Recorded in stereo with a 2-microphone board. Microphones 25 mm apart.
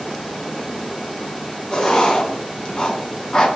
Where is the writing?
25° left (ahead or behind), 0.9 m.